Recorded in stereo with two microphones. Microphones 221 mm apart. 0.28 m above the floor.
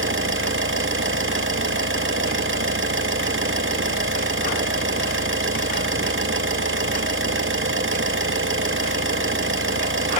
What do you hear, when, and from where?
0.0 s an engine running: 60° right (ahead or behind), 4 m